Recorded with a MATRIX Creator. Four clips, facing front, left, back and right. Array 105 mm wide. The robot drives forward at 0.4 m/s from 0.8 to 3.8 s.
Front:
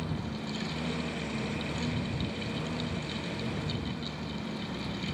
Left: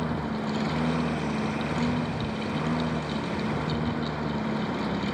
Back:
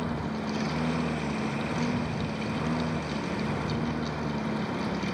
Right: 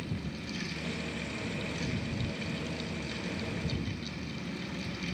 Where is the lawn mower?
115° left; by 5.1 s 120° left.